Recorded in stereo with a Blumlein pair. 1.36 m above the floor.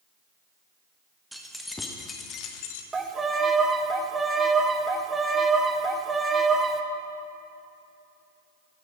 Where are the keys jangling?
5° right, 1.1 m; by 2.8 s 50° left, 0.9 m.